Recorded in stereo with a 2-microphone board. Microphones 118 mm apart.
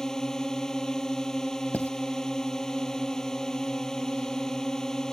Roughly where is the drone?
Centre.